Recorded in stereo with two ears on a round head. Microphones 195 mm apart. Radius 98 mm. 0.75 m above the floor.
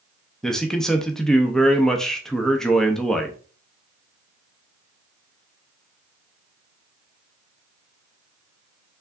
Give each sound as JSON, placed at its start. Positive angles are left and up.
{"t": 0.4, "sound": "a man speaking", "side_deg": 0, "distance_m": 0.5}